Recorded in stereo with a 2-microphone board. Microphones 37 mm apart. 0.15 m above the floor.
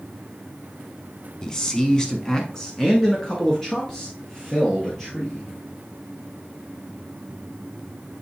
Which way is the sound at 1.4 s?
15° left (ahead or behind).